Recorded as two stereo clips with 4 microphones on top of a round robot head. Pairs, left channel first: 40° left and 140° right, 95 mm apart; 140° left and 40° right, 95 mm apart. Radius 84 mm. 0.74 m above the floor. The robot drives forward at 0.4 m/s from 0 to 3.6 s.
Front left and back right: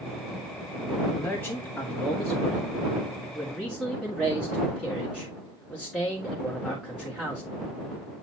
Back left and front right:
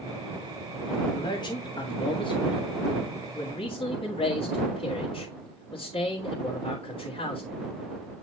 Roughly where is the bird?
I don't hear a bird.